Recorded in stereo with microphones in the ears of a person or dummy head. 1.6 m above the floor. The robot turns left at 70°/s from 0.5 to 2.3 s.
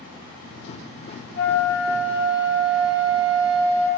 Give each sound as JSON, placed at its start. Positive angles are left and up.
{"t": 1.4, "sound": "a flute", "azimuth_deg": 35, "distance_m": 0.7}